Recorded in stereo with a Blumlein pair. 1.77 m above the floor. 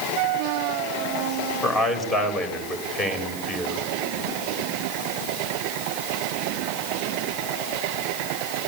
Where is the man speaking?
10° left, 7 m.